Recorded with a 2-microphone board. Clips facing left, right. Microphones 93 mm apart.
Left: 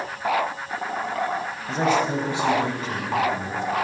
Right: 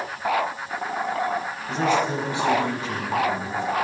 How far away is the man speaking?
About 3.5 m.